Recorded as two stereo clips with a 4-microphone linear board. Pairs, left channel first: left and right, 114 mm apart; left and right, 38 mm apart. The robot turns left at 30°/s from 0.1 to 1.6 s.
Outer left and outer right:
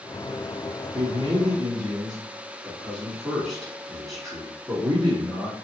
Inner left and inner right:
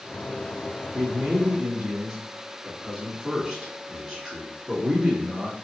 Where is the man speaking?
5° right (ahead or behind), 1.4 m; by 5.5 s centre (ahead or behind), 1.4 m.